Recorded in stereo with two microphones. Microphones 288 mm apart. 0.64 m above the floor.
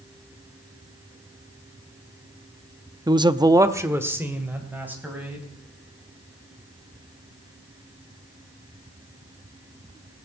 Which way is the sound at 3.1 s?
15° right (ahead or behind).